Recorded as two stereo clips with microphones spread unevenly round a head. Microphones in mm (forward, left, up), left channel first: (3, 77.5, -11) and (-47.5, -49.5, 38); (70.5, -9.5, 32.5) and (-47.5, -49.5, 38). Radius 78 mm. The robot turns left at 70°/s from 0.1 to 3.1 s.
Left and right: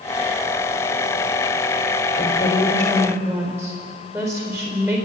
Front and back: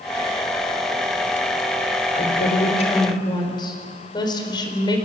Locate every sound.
2.1 s a woman speaking: 30° left, 4.5 m; by 5.1 s 35° right, 4.5 m